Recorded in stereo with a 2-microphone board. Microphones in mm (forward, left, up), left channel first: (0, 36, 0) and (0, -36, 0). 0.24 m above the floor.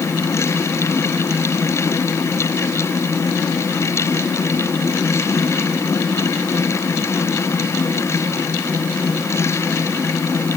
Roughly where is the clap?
I don't hear a clap.